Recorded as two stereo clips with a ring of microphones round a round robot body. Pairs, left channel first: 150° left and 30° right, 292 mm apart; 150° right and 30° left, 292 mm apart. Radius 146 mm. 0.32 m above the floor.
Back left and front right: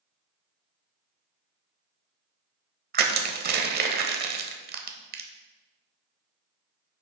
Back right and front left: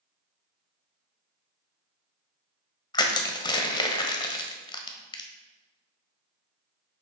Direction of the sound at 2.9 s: 80° right.